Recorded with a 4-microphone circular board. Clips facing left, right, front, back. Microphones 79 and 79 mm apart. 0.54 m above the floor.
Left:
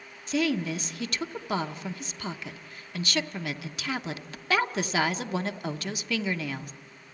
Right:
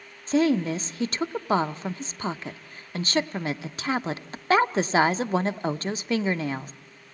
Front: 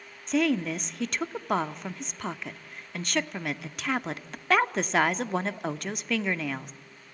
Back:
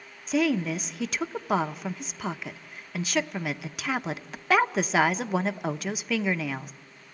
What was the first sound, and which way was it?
A woman speaking, 95° right.